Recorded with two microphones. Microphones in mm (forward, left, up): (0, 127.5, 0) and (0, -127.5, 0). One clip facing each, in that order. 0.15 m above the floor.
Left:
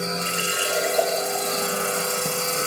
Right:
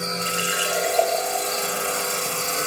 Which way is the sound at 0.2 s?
45° left (ahead or behind).